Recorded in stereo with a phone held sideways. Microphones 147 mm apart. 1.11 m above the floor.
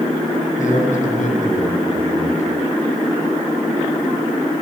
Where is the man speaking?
65° left (ahead or behind), 9 m.